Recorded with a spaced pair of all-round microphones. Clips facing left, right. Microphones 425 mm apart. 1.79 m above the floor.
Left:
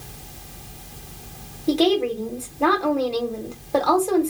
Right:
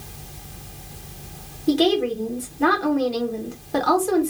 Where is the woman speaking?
30° right (ahead or behind), 1.2 m.